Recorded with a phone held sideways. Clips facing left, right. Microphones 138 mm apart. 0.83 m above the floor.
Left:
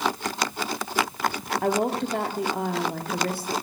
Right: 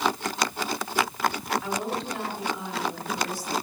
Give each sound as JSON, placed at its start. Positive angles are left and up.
{"t": 1.6, "sound": "a woman speaking", "side_deg": 60, "distance_m": 2.0}